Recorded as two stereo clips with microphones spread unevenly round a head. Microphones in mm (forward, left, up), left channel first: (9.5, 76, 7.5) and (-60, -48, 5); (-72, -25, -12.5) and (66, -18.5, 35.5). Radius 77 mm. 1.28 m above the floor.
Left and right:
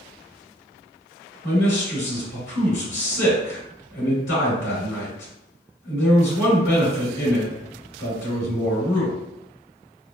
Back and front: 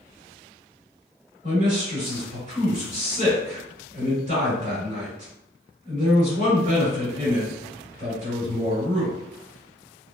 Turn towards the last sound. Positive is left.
turn(degrees=50)